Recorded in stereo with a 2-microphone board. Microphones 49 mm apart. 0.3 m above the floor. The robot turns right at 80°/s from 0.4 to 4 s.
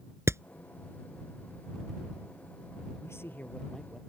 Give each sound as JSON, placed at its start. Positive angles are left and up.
{"t": 0.3, "sound": "hammering", "side_deg": -60}
{"t": 3.0, "sound": "a man speaking", "azimuth_deg": 115}